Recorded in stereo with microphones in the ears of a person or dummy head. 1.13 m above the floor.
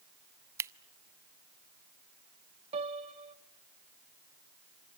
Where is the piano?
30° right (ahead or behind), 0.7 m.